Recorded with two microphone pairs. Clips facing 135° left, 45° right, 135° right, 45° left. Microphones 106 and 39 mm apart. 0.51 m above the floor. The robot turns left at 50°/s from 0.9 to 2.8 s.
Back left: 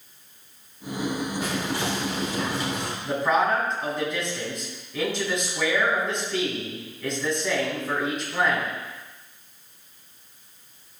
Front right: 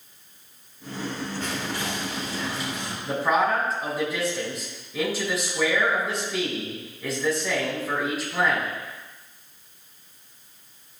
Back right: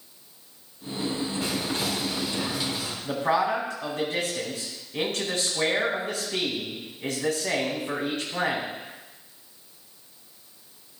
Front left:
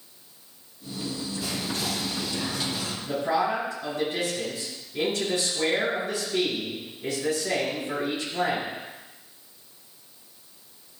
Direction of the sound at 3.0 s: 130° right.